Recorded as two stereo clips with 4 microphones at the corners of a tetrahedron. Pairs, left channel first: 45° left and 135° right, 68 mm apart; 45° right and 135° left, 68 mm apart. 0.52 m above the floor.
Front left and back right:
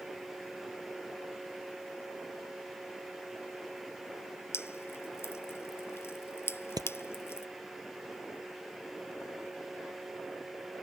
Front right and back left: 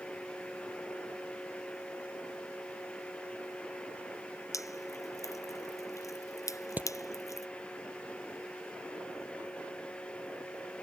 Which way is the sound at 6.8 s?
160° right.